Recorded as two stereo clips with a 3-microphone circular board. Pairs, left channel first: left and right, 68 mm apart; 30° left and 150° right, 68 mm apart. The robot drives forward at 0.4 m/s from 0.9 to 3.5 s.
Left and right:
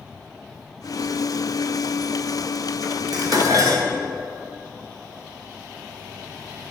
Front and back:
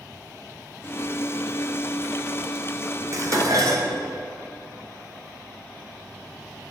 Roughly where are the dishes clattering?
Right.